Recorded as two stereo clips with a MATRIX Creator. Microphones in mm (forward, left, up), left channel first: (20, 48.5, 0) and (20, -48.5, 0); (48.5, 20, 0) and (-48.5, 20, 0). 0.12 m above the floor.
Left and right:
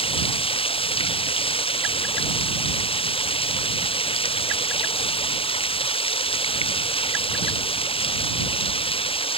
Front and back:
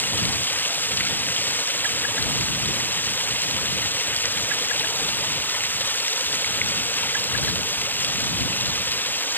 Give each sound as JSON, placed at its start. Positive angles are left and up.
{"t": 0.0, "sound": "running water", "azimuth_deg": 70}